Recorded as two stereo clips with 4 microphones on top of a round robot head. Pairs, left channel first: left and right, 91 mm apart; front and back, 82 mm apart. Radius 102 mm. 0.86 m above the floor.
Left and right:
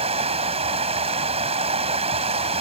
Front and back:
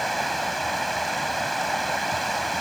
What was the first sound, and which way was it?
Running water, 90° right.